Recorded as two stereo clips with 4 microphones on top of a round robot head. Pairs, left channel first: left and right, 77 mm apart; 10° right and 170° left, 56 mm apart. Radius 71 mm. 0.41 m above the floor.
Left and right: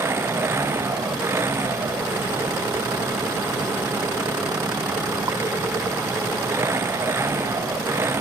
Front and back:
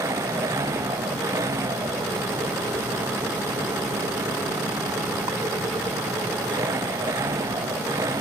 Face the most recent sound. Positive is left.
turn(degrees=-145)